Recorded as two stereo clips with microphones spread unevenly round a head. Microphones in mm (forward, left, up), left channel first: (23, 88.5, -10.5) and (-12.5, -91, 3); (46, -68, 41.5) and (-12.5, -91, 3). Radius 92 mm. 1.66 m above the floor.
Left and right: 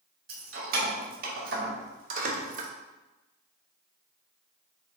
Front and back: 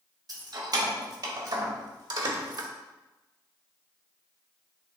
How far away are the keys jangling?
About 3 m.